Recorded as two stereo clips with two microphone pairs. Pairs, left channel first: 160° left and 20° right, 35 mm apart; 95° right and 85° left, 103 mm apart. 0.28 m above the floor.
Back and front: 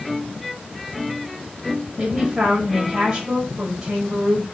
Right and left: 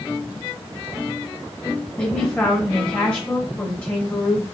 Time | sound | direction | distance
2.0 | a man speaking | 50° right | 0.9 m